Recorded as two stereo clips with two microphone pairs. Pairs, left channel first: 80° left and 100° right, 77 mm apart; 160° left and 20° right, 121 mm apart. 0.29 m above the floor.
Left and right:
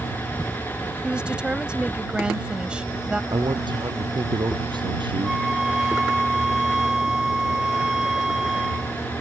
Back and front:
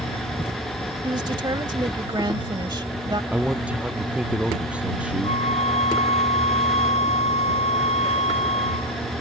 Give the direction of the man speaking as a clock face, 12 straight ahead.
3 o'clock.